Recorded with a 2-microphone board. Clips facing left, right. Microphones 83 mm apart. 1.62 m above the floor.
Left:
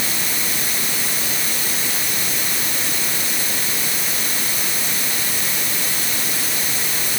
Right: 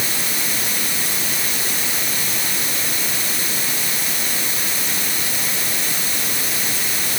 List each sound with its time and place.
Only background noise.